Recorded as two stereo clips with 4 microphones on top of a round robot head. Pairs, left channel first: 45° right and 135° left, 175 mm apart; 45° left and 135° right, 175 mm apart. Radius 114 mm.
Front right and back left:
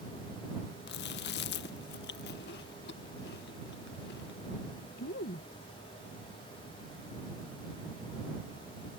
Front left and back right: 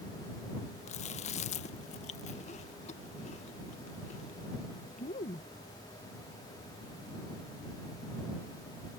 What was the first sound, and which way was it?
Chewing, 10° right.